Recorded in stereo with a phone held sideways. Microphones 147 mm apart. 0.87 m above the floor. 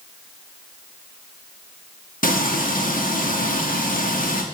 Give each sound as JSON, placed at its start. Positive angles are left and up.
{"t": 2.2, "sound": "frying", "side_deg": 70, "distance_m": 1.6}